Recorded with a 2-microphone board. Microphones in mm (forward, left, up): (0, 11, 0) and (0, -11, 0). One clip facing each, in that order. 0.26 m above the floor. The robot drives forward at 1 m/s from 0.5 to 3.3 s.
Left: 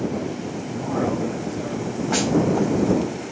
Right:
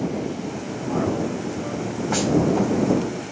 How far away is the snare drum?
About 1.3 m.